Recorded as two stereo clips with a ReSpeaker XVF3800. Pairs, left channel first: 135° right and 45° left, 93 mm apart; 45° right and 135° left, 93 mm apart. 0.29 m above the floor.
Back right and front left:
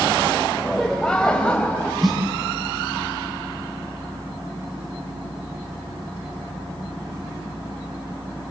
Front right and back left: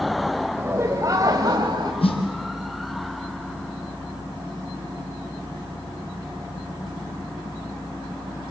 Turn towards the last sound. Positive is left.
turn(degrees=-45)